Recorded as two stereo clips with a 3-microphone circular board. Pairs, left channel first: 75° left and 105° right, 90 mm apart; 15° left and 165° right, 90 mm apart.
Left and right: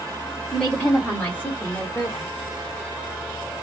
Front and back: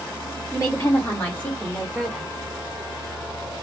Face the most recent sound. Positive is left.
turn(degrees=105)